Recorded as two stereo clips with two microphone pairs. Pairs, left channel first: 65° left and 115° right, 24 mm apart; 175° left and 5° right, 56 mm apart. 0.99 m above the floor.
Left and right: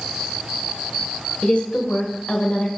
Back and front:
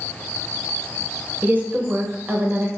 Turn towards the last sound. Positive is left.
turn(degrees=40)